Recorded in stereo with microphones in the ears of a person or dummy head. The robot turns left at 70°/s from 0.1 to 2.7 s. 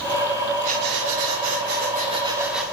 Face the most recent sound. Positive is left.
turn(degrees=175)